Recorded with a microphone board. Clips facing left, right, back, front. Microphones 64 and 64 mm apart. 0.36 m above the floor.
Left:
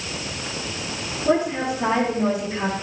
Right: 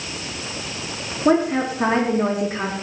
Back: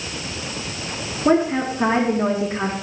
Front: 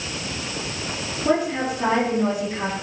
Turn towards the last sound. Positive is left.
turn(degrees=-135)